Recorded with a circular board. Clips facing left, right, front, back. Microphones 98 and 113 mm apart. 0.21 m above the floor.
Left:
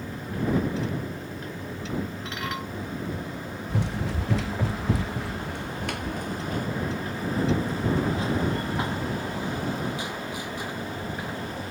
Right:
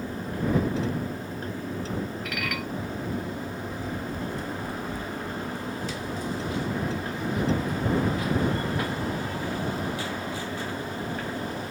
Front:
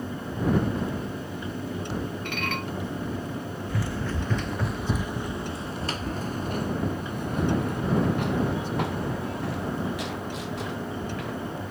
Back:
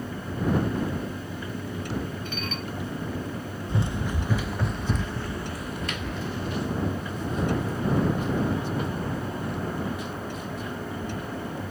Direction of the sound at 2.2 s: 25° left.